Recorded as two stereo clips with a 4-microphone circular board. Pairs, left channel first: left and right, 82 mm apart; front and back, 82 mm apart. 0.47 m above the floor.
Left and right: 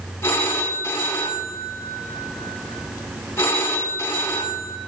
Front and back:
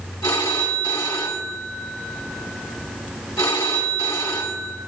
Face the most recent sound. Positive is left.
turn(degrees=35)